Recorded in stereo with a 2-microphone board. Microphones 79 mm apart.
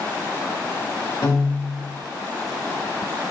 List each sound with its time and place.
1.2 s a piano: 50° left (ahead or behind), 2.5 m